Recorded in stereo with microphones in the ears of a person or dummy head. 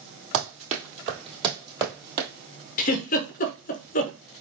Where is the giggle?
40° left (ahead or behind), 0.8 m.